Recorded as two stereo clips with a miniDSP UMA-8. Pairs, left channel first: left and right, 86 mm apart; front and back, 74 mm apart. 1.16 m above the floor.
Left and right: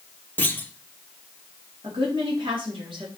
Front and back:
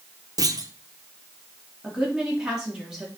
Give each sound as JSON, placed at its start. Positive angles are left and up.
{"t": 0.4, "sound": "a clunk", "azimuth_deg": 160, "distance_m": 0.7}
{"t": 1.8, "sound": "a woman speaking", "azimuth_deg": -100, "distance_m": 3.0}